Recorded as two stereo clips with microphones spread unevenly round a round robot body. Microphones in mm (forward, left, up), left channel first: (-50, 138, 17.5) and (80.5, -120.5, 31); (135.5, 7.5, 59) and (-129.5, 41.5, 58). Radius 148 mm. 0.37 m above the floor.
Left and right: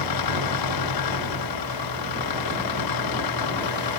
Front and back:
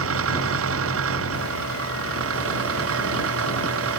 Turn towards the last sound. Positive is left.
turn(degrees=135)